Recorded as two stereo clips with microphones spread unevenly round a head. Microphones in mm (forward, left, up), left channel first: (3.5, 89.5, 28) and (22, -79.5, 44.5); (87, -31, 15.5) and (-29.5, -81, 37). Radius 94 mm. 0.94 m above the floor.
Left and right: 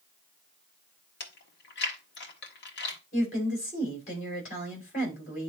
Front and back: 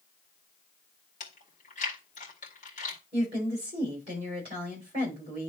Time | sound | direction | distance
1.2 | chewing | 70° left | 1.9 m
3.1 | a woman speaking | 145° left | 6 m